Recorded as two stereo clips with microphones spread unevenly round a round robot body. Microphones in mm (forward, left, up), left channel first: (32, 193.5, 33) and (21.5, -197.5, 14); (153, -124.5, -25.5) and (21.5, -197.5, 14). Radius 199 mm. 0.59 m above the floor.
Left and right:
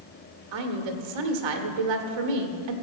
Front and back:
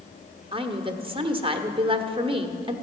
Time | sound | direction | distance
0.5 | a woman speaking | 85° right | 1.3 m